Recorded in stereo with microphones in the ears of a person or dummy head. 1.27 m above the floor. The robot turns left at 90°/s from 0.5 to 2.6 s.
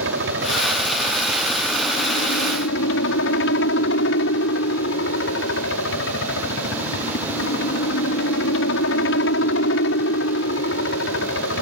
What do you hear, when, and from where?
0.0 s a helicopter: 95° right; by 11.6 s 80° left